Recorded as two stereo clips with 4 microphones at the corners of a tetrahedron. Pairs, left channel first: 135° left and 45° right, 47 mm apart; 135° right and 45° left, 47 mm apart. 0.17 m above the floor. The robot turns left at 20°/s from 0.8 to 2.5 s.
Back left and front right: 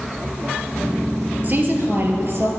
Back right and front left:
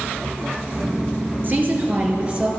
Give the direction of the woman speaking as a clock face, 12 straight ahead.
12 o'clock.